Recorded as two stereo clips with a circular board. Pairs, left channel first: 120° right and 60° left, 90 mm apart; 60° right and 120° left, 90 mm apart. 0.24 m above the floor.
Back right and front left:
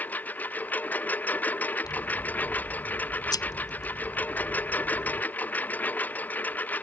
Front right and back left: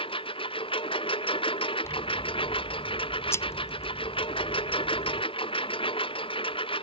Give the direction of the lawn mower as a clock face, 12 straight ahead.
2 o'clock.